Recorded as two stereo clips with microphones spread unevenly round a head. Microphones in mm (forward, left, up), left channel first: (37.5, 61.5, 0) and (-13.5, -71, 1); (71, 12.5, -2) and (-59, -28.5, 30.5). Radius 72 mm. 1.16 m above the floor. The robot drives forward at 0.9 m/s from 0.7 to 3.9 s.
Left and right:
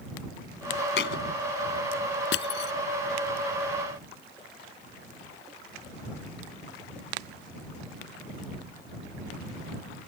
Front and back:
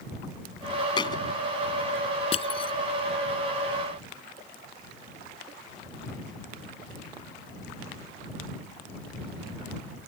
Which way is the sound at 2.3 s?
75° left.